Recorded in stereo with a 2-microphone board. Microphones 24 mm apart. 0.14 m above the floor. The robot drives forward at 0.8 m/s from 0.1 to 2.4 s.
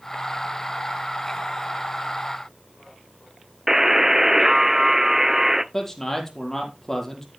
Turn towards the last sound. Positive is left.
turn(degrees=15)  # may be behind; listen again after turning